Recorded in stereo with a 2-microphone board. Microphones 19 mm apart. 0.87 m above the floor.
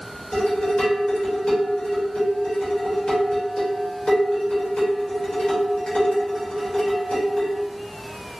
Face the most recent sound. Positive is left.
turn(degrees=75)  # may be behind; listen again after turning